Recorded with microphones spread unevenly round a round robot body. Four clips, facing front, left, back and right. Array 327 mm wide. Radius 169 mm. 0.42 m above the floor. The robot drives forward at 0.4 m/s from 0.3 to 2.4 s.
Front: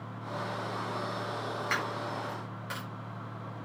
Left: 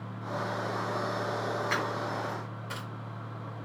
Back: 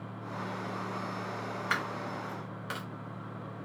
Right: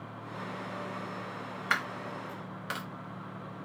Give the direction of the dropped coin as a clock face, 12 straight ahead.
3 o'clock.